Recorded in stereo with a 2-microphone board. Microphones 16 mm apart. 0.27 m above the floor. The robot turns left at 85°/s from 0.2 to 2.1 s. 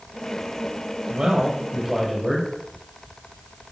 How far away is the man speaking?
About 9.5 m.